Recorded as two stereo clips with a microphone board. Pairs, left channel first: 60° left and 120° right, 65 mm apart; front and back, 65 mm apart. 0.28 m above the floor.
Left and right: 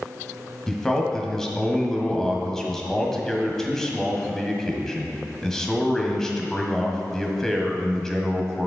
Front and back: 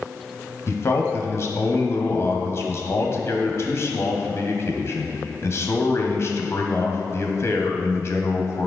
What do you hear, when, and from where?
0.7 s a man speaking: 20° right, 1.5 m